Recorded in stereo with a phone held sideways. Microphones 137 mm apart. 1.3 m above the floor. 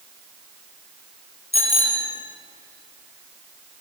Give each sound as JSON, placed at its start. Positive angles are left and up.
{"t": 1.5, "sound": "a bicycle bell", "side_deg": 50, "distance_m": 4.0}